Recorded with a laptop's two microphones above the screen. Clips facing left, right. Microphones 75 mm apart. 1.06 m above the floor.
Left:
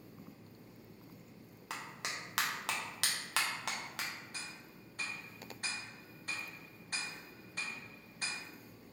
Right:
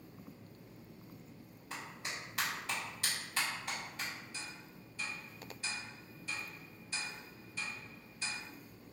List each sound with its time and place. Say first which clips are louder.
1.7 s a clap: left 1 dB; 80° left, 0.8 m
4.3 s ticking: even; 55° left (ahead or behind), 0.9 m